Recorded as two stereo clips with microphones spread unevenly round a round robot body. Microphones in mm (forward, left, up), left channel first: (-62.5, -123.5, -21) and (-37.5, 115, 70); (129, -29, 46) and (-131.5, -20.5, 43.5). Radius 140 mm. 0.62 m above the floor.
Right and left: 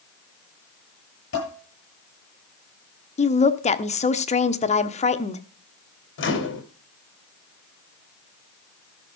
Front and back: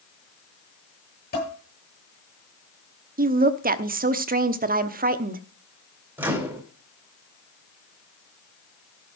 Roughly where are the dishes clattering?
Ahead right.